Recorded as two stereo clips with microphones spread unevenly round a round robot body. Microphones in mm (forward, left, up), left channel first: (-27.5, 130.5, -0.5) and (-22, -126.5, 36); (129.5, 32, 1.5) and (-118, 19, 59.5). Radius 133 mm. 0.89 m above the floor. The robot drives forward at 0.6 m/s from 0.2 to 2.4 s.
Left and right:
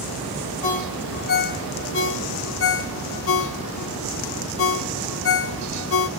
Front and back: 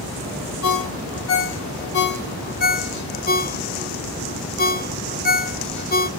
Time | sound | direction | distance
0.6 | a ringtone | 30° left | 2 m